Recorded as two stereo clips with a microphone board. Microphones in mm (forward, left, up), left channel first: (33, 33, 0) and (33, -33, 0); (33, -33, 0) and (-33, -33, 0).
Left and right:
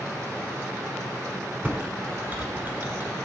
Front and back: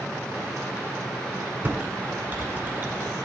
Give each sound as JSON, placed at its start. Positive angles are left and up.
{"t": 1.6, "sound": "typing on a keyboard", "azimuth_deg": -135, "distance_m": 1.6}